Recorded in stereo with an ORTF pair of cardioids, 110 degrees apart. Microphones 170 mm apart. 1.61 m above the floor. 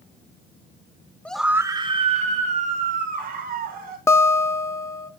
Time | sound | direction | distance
1.2 | a scream | 10° left | 1.1 m
4.1 | a guitar | 15° left | 0.7 m